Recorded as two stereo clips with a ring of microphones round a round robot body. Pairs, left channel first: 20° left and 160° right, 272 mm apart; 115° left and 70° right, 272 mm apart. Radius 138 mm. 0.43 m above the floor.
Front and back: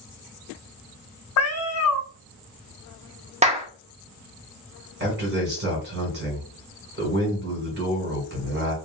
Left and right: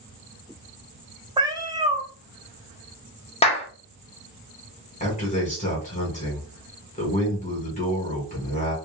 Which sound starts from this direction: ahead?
A cat meowing, at 1.4 s.